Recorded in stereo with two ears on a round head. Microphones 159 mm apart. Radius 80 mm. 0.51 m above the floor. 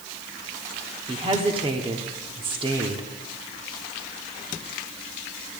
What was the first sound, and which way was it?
A woman speaking, 30° right (ahead or behind).